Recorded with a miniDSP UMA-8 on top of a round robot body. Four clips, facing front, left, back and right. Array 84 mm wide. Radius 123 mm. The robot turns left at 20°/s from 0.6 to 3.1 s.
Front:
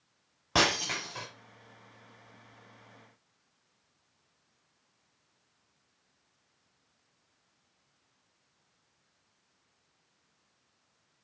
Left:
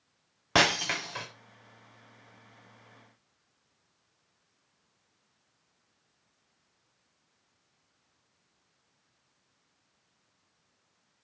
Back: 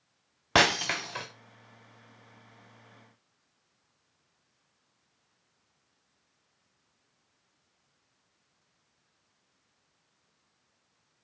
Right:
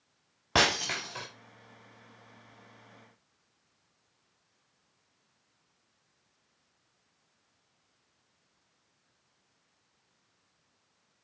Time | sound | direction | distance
0.6 | breaking glass | 170° left | 0.8 m